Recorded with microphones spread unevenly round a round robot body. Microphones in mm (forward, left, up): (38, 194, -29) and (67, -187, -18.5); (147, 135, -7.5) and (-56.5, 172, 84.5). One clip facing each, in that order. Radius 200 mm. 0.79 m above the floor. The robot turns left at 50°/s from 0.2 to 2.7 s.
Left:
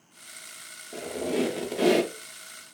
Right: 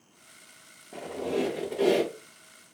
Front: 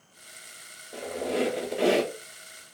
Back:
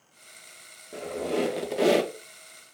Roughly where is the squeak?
Behind.